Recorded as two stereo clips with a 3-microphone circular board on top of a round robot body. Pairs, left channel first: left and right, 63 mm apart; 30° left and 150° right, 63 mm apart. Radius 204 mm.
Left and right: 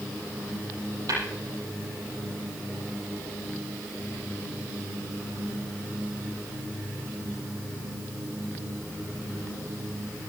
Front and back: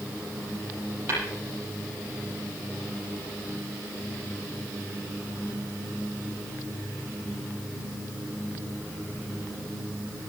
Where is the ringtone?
No ringtone in this recording.